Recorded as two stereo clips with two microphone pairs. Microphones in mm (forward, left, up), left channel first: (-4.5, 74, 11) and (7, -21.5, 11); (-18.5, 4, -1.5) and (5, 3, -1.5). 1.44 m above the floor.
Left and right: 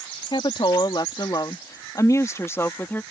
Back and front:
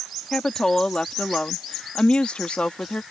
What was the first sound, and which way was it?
A woman speaking, 125° left.